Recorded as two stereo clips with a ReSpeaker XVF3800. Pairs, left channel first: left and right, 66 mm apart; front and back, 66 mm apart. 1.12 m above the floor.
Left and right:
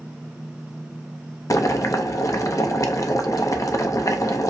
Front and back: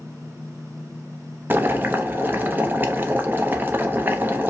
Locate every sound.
1.5 s boiling: 120° left, 0.5 m